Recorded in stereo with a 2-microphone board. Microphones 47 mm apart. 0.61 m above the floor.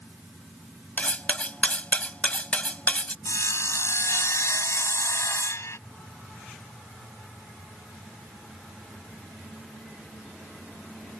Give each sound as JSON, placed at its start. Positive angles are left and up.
{"t": 1.0, "sound": "cutlery clinking", "side_deg": 35}
{"t": 3.2, "sound": "sawing", "side_deg": 70}